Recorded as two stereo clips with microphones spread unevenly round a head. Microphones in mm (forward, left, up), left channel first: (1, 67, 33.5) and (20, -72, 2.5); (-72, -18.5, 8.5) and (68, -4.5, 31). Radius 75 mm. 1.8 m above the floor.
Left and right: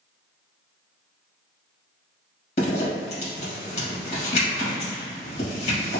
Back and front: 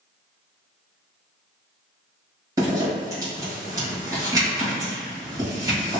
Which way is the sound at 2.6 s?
65° left.